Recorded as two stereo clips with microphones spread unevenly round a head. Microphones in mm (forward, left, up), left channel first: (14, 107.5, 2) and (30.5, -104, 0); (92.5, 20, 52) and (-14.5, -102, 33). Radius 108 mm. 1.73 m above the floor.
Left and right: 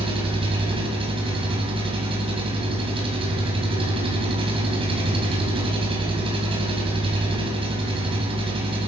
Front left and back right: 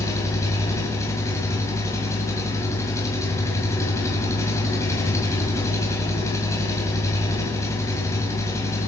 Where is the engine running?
20° right, 4.5 m.